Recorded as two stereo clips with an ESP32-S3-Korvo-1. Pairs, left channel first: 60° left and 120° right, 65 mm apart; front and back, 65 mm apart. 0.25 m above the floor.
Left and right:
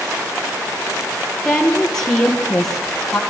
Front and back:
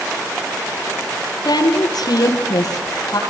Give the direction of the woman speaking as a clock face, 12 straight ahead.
1 o'clock.